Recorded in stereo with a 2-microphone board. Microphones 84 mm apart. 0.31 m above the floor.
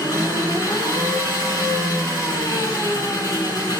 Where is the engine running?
45° left (ahead or behind), 3 m.